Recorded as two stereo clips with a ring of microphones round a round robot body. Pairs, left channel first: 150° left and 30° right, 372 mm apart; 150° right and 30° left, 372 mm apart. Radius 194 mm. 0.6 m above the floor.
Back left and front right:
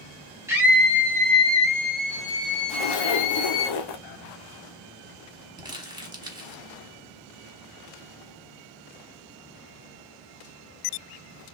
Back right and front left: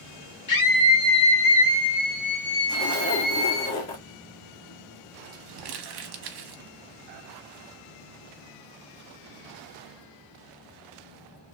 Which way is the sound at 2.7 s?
160° left.